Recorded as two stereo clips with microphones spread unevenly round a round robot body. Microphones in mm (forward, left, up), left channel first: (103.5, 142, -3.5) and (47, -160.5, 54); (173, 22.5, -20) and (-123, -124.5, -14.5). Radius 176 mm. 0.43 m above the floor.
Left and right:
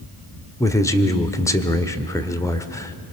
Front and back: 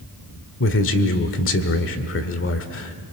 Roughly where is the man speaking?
Ahead.